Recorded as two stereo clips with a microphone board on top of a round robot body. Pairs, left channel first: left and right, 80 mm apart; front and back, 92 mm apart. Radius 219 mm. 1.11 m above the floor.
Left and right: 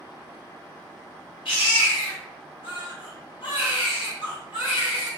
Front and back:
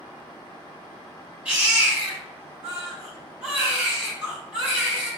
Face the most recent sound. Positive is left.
turn(degrees=105)